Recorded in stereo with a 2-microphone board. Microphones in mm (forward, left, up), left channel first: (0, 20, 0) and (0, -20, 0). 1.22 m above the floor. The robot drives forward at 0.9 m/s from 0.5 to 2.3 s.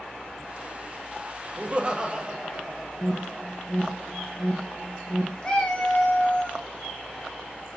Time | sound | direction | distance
1.6 | laughter | 40° right (ahead or behind) | 0.5 m
3.0 | an alarm | 15° left (ahead or behind) | 0.7 m
5.4 | a cat meowing | 25° left (ahead or behind) | 0.9 m